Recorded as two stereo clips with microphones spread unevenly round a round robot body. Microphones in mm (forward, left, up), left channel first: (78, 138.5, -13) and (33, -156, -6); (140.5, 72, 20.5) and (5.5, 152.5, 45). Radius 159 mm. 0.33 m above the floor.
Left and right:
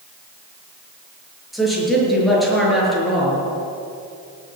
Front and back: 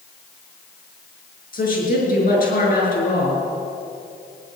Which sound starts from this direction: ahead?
A woman speaking, at 1.5 s.